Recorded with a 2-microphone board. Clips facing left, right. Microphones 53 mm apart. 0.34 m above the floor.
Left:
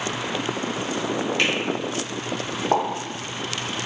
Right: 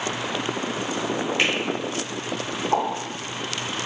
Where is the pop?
80° left, 0.9 m.